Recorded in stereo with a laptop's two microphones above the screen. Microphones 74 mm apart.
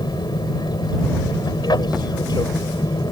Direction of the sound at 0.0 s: 70° left (ahead or behind).